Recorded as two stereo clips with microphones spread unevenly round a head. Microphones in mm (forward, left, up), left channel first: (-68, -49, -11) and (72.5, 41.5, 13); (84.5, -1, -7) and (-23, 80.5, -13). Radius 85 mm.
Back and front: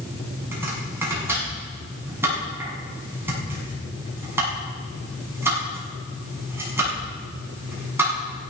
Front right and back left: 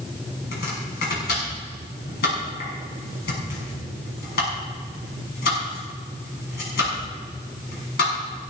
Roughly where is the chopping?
Ahead right.